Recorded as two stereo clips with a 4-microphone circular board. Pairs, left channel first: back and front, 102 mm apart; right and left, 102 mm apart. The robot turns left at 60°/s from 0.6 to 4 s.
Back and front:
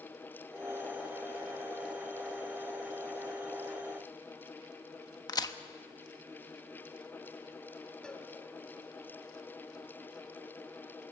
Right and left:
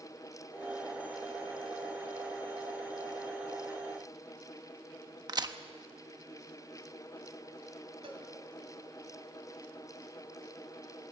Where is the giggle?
I don't hear a giggle.